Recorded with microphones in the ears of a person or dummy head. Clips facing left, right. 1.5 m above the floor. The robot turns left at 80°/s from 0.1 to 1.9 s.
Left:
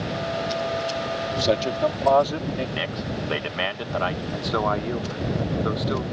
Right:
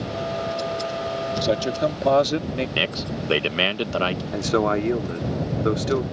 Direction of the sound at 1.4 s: 5° left.